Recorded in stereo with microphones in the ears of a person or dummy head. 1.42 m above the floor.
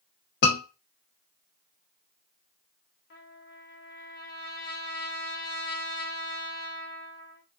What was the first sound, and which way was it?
A scream, 45° left (ahead or behind).